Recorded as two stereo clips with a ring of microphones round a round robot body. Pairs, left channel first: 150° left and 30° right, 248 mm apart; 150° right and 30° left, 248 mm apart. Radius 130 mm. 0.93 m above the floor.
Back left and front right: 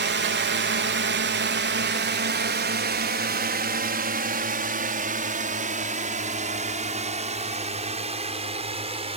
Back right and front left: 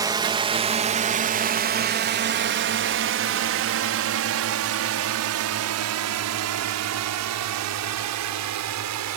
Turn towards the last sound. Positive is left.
turn(degrees=35)